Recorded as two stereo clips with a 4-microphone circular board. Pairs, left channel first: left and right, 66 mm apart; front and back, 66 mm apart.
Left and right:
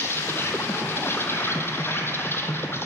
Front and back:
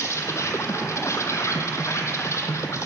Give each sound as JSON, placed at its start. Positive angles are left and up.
{"t": 0.0, "sound": "an insect", "azimuth_deg": 40, "distance_m": 0.8}